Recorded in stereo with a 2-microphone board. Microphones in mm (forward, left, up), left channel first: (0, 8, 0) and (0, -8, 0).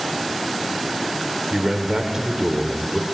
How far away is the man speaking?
About 1.6 m.